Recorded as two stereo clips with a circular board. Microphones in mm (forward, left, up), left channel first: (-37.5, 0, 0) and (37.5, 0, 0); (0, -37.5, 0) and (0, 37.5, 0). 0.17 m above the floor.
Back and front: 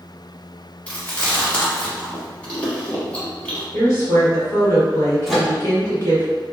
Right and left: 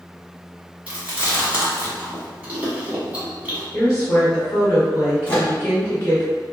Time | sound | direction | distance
0.9 | chewing | 135° left | 1.2 m
3.7 | a woman speaking | 145° right | 1.6 m
5.3 | a microwave | 85° right | 0.9 m